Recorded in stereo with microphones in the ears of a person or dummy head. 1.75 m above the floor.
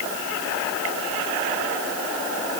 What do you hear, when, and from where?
Only background noise.